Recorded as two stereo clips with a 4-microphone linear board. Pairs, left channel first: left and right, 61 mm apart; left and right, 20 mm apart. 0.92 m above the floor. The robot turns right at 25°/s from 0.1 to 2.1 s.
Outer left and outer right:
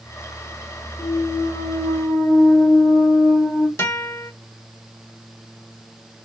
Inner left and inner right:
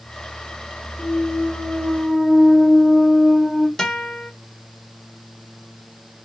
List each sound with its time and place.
1.0 s a clunk: 75° left (ahead or behind), 1.3 m; by 3.7 s 65° left (ahead or behind), 1.3 m
3.8 s a guitar: 40° left (ahead or behind), 1.3 m